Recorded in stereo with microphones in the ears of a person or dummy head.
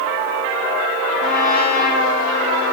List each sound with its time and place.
1.2 s a trumpet: 45° left (ahead or behind), 4 m